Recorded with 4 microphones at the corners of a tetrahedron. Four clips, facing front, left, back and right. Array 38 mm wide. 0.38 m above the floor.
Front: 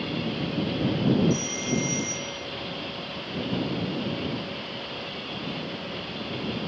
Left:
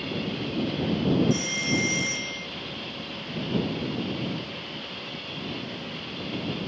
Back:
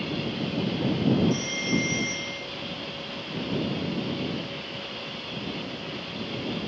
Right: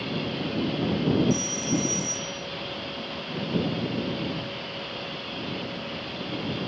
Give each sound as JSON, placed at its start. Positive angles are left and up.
{"t": 1.3, "sound": "a phone ringing", "azimuth_deg": 120}